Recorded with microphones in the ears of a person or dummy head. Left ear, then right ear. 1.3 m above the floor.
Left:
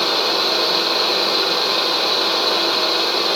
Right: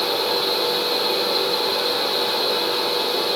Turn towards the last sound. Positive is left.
turn(degrees=70)  # may be behind; listen again after turning